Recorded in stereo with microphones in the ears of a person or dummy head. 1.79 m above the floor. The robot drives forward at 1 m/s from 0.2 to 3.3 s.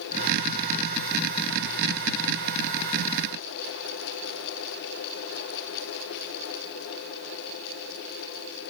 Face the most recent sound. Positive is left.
No sound to turn to.